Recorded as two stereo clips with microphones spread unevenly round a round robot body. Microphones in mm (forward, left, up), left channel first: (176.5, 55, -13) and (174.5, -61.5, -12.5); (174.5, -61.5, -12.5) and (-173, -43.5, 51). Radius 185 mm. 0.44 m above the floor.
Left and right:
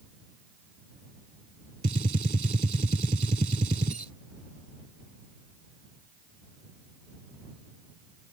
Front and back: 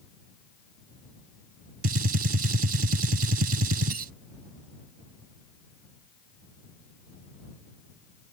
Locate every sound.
1.8 s a gunshot: 130° right